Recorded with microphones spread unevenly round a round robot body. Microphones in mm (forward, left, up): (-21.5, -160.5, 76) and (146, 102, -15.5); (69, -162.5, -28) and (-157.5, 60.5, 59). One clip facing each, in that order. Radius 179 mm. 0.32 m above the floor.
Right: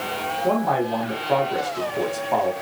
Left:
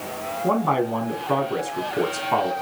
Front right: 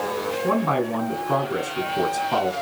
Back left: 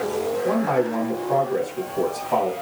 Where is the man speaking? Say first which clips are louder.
Even, even; 5° left, 3 m.